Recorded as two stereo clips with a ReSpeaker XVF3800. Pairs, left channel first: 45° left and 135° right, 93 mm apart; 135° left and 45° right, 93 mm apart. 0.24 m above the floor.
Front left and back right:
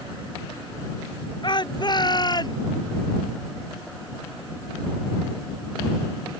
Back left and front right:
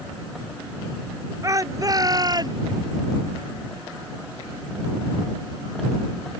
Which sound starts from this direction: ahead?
A shout, at 1.4 s.